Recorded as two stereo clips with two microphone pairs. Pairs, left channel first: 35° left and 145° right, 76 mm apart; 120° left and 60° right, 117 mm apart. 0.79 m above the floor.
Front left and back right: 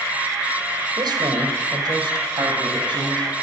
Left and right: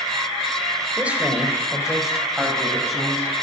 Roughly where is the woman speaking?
Behind right.